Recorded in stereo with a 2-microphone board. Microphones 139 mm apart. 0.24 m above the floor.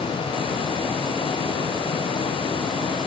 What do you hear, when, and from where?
Only background noise.